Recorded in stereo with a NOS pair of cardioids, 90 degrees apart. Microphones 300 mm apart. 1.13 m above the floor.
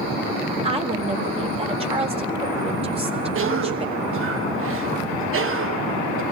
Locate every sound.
0.6 s a woman speaking: 20° right, 4 m
3.4 s a cough: 45° right, 1.0 m